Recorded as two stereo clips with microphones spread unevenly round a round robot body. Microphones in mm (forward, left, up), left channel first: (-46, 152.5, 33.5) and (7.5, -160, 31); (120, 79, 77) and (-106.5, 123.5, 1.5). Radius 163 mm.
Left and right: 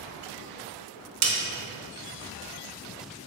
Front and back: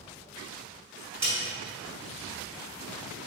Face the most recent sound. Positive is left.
turn(degrees=-90)